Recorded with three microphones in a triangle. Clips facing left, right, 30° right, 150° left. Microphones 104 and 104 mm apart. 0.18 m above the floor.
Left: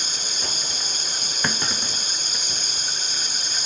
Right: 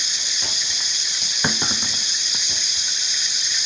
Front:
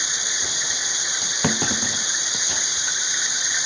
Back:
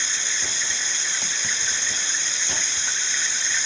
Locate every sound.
0.0 s running water: 45° left
1.4 s a clunk: 10° right